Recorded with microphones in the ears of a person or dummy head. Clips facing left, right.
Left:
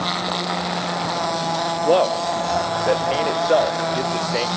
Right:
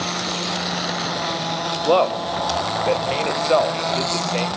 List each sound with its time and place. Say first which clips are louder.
1.9 s a man speaking: even; 10° left (ahead or behind), 0.8 m